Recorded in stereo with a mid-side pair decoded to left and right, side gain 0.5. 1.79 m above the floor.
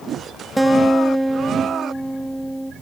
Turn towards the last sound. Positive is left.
turn(degrees=-10)